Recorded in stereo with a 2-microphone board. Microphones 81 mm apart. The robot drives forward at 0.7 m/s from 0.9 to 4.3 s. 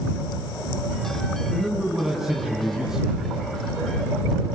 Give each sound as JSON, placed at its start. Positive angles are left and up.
{"t": 1.5, "sound": "a man speaking", "side_deg": -5, "distance_m": 3.0}